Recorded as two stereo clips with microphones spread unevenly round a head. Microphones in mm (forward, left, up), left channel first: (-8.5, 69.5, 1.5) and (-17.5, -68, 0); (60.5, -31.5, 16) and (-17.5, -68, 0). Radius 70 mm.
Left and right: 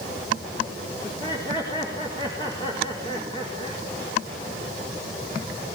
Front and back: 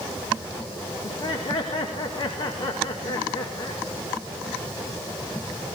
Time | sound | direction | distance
1.0 | laughter | 25° left | 4 m